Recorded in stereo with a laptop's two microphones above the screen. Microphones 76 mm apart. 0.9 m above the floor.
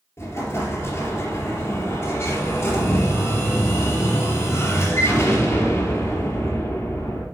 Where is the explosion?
40° left (ahead or behind), 3.5 m.